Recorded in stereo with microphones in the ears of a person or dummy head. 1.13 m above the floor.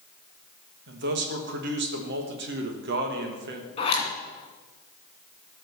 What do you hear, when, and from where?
0.9 s a man speaking: 55° right (ahead or behind), 1.3 m
3.8 s a zipper: 30° left (ahead or behind), 2 m